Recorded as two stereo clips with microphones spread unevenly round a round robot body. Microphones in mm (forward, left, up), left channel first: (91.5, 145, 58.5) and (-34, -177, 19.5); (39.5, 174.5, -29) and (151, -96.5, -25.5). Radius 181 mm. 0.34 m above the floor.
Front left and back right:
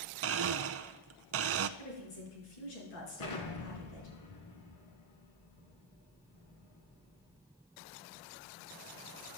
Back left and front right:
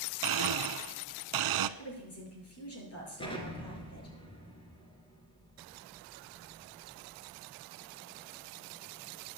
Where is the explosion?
40° left, 3 m.